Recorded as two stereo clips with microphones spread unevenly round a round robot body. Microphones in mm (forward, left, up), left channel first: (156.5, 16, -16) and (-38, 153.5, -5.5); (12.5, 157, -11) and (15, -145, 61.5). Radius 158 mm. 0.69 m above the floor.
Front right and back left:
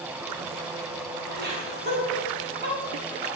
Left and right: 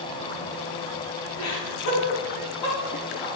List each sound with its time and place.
1.4 s laughter: 100° left, 6.5 m